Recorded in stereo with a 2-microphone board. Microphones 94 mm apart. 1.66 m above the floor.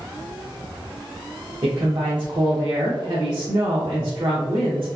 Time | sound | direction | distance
1.6 | a woman speaking | 55° right (ahead or behind) | 0.7 m